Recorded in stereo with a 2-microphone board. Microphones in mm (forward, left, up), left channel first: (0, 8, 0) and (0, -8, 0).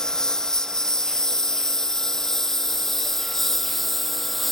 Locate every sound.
0.0 s a lawn mower: 45° left (ahead or behind); by 4.5 s 10° left (ahead or behind)